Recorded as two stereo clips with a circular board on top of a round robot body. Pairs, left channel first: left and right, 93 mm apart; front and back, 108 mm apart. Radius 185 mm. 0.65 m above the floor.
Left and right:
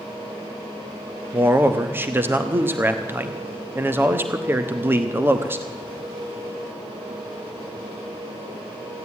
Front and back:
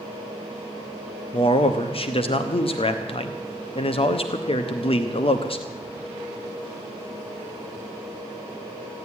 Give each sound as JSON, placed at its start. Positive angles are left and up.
{"t": 1.3, "sound": "a man speaking", "azimuth_deg": -25, "distance_m": 1.2}